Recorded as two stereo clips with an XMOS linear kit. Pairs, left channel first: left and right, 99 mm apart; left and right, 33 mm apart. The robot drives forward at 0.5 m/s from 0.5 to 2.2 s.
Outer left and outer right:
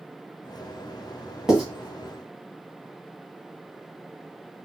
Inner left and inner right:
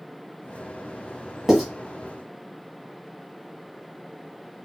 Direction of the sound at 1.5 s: 5° right (ahead or behind).